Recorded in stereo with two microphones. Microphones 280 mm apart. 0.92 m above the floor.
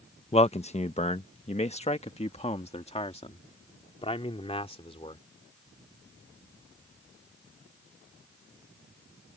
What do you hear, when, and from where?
0.3 s a man speaking: 20° left (ahead or behind)